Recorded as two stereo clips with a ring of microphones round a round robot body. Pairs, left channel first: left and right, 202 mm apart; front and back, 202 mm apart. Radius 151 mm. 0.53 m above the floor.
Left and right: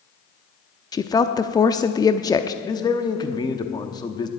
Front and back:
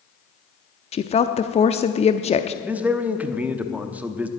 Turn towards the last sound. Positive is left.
turn(degrees=110)